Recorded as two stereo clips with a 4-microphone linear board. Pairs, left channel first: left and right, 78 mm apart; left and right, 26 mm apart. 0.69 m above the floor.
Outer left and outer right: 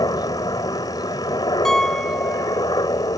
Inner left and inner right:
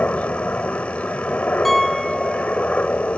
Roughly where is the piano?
Centre.